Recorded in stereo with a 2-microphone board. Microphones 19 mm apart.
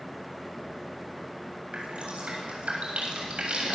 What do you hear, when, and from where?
1.7 s dripping: 85° right, 8 m